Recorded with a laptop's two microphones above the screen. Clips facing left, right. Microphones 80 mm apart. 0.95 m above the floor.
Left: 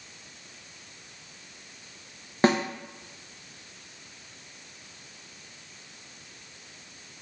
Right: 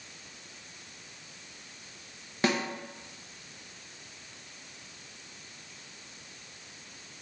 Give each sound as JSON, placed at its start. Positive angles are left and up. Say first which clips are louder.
{"t": 2.4, "sound": "a snare drum", "louder": "left 6 dB", "side_deg": 35, "distance_m": 0.9}